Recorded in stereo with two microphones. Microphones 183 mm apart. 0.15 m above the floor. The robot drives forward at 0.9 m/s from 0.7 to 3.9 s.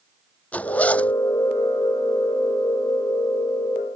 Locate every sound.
0.5 s a zipper: 10° left (ahead or behind); by 1.1 s 5° left (ahead or behind)